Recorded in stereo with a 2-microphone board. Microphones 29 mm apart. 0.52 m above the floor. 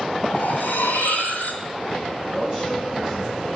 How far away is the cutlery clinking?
About 2.5 m.